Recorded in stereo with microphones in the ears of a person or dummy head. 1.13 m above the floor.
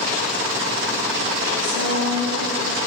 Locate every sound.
1.6 s a woman speaking: 85° right, 7.5 m